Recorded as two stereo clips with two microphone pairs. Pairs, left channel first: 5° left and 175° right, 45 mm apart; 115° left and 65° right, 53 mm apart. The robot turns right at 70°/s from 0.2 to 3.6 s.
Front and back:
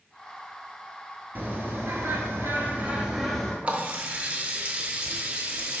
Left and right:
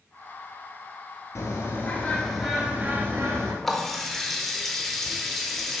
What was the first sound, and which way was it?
A bird, 135° left.